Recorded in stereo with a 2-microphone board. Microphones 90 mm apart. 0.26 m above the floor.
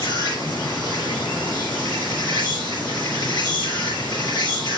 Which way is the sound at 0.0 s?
55° left (ahead or behind).